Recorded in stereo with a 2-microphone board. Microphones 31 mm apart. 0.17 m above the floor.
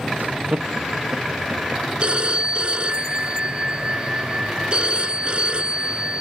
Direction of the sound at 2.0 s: 35° right (ahead or behind).